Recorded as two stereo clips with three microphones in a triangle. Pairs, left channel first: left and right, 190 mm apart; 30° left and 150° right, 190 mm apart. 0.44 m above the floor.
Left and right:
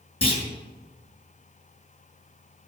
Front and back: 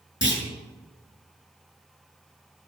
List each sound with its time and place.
0.2 s a clunk: 30° left, 5 m